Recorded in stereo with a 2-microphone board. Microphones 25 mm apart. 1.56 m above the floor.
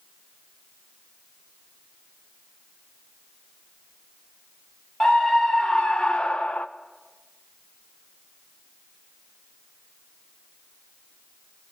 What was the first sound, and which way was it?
A scream, 30° left (ahead or behind).